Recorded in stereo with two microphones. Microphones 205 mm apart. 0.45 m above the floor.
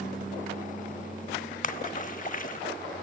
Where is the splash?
40° left (ahead or behind), 0.5 m.